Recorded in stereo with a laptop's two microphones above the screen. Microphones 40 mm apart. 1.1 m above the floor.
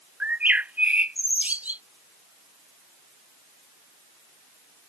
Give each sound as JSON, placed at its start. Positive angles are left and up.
{"t": 0.2, "sound": "a bird", "side_deg": -35}